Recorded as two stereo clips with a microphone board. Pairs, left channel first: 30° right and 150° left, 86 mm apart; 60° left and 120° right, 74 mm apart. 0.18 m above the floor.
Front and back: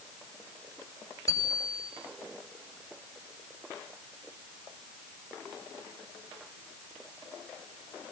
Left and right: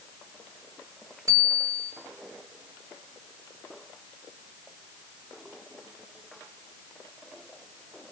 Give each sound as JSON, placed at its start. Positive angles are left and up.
{"t": 1.3, "sound": "a bicycle bell", "azimuth_deg": -85, "distance_m": 8.0}